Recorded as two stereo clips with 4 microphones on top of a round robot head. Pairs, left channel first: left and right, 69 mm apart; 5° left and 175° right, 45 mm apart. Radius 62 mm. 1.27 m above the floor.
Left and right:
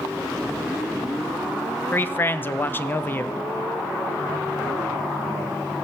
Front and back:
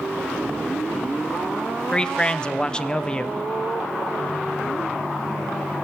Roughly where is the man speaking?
Ahead left.